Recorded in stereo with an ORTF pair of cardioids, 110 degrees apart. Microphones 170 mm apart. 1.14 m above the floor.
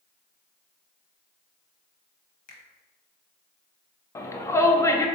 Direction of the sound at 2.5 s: 50° left.